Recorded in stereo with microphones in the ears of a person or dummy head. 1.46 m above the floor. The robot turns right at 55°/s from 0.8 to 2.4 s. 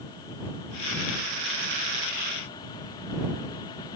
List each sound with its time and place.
Only background noise.